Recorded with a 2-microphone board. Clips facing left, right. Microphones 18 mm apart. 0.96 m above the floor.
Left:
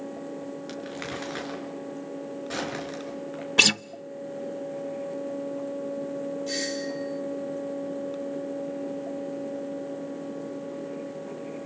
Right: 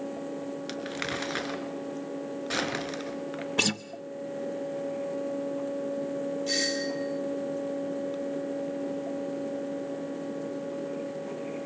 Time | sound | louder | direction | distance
0.7 | crumpling | right 3 dB | 25° right (ahead or behind) | 4.5 m
3.6 | a guitar | left 8 dB | 35° left (ahead or behind) | 0.6 m
6.5 | a doorbell | right 4 dB | 20° right (ahead or behind) | 6.5 m